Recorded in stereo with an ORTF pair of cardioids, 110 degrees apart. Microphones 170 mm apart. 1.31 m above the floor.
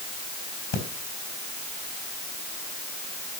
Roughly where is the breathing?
Ahead left.